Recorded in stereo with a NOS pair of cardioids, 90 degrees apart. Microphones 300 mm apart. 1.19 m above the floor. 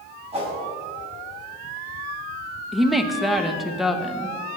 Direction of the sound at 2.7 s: Straight ahead.